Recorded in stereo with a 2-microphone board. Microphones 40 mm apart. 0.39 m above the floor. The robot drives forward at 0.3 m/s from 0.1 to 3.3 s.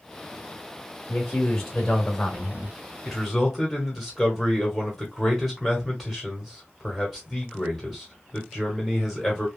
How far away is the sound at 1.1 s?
About 1.6 m.